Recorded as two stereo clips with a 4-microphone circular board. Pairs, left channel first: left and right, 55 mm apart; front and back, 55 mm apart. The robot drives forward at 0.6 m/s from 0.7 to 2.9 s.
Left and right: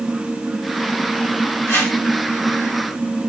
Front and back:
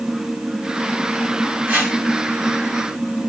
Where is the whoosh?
125° left, 1.5 m; by 2.0 s 130° left, 1.6 m.